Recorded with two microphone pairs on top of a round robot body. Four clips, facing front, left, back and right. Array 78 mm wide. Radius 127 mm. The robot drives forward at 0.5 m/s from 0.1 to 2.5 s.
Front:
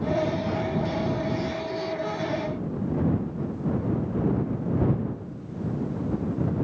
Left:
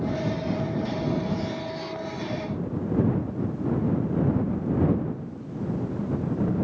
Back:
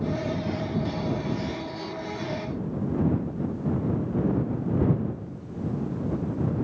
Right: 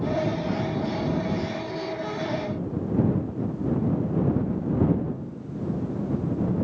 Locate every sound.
Only background noise.